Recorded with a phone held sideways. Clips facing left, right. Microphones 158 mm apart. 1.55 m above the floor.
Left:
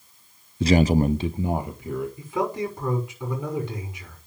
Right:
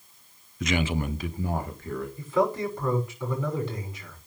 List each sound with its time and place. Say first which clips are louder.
0.6 s a man speaking: left 9 dB; 30° left (ahead or behind), 0.6 m; by 2.1 s 15° left (ahead or behind), 1.7 m
2.2 s a man speaking: right 5 dB; 15° left (ahead or behind), 6 m